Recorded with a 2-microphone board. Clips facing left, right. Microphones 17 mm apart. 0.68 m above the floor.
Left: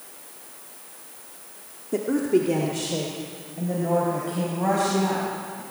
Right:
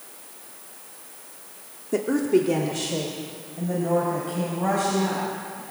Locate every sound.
1.9 s a woman speaking: 25° right (ahead or behind), 1.4 m; by 5.6 s 5° left (ahead or behind), 6 m